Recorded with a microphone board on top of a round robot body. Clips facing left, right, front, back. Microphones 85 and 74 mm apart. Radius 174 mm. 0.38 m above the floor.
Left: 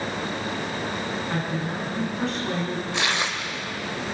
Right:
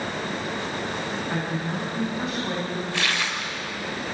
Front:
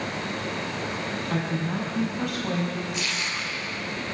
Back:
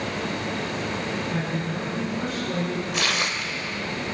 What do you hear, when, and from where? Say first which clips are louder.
1.3 s a woman speaking: even, even; 5° right, 6 m
2.9 s tearing paper: left 2 dB, back 4 dB; 155° left, 2 m